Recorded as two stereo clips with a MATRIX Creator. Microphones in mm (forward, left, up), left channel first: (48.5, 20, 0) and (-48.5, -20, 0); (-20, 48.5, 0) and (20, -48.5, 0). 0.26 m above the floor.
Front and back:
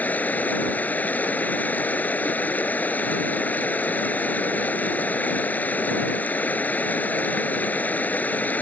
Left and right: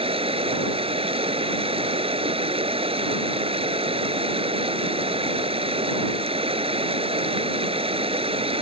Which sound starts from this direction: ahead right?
Running water, at 0.0 s.